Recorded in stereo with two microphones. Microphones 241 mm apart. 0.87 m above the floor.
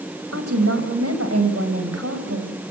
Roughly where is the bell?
I don't hear a bell.